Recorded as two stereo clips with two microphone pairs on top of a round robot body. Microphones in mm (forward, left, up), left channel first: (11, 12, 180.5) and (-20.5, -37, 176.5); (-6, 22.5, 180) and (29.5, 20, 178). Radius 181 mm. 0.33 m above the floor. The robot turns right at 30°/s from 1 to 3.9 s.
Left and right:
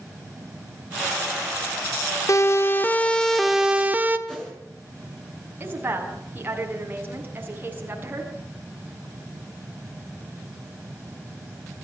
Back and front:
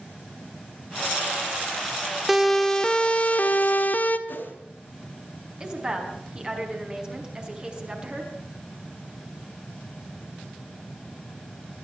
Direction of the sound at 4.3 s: 140° left.